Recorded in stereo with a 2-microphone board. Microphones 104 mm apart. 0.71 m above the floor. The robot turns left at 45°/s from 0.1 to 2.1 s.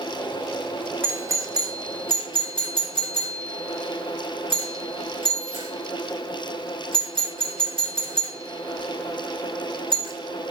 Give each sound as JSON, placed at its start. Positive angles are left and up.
{"t": 1.0, "sound": "a doorbell", "side_deg": -20, "distance_m": 3.0}